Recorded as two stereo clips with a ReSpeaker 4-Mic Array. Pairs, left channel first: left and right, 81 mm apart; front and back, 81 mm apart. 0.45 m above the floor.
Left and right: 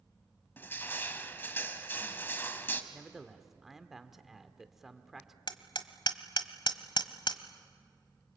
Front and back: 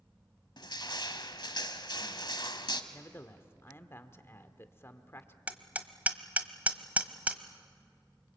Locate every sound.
0.6 s crushing: 25° left, 1.4 m
2.9 s a man speaking: 5° right, 1.3 m
5.5 s hammering: 110° left, 1.1 m